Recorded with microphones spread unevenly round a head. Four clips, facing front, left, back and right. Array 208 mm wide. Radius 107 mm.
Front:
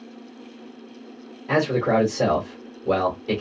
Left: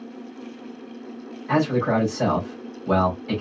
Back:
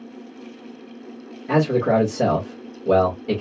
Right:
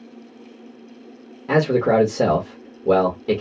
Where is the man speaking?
100° right, 1.7 m.